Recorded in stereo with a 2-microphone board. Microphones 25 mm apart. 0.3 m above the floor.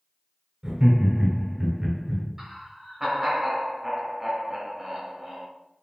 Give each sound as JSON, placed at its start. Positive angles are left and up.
{"t": 0.6, "sound": "laughter", "side_deg": -25, "distance_m": 1.1}
{"t": 2.4, "sound": "laughter", "side_deg": -20, "distance_m": 1.1}